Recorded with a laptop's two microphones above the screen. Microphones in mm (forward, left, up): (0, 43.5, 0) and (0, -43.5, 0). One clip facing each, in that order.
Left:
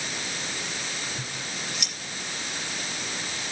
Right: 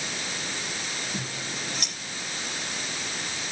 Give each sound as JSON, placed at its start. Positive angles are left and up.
{"t": 1.1, "sound": "scissors", "side_deg": -40, "distance_m": 9.0}